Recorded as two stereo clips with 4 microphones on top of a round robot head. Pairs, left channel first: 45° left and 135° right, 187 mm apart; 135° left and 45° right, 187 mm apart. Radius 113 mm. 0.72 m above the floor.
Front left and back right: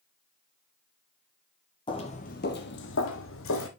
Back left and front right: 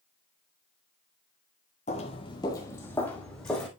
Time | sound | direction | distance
1.9 | footsteps | 95° left | 0.8 m